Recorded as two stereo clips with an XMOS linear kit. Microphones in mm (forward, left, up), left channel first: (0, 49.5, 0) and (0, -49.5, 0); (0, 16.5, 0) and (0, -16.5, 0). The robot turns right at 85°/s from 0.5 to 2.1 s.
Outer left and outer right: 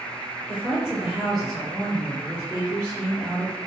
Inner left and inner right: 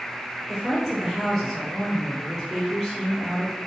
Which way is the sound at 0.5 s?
20° right (ahead or behind).